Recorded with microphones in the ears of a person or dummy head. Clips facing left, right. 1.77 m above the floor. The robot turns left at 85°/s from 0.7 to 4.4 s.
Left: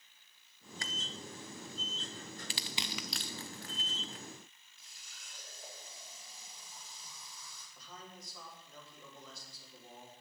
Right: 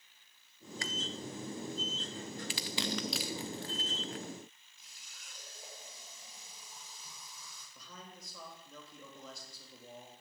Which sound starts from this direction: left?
Crushing, at 2.5 s.